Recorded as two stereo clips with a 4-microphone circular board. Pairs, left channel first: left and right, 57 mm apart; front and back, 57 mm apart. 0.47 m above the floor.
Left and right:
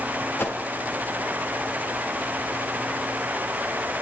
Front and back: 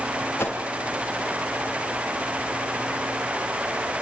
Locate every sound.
0.4 s a whoosh: 45° left, 4.5 m